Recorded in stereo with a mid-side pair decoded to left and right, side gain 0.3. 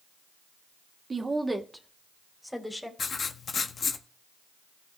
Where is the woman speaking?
45° right, 1.8 m; by 2.9 s 10° left, 3.5 m.